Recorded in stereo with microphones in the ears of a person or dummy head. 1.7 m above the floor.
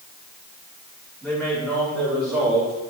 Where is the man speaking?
10° left (ahead or behind), 4.5 m; by 2.8 s 5° left (ahead or behind), 3 m.